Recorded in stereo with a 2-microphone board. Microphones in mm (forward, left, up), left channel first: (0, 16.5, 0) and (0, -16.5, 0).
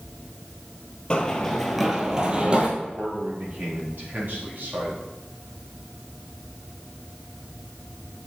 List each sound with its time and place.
1.1 s running footsteps: 25° left (ahead or behind), 1.7 m; by 2.7 s 35° right (ahead or behind), 2 m
2.8 s a man speaking: 65° right (ahead or behind), 3 m